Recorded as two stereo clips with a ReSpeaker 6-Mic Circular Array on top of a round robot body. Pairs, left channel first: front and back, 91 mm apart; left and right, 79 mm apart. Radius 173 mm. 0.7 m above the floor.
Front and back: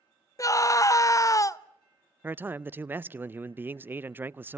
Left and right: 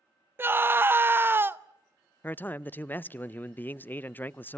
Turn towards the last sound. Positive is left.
turn(degrees=135)